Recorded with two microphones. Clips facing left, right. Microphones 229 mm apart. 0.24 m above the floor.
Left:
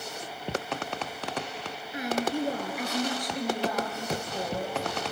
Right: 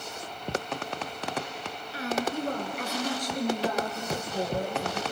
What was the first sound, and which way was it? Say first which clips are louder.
A woman speaking: left 2 dB; 20° left (ahead or behind).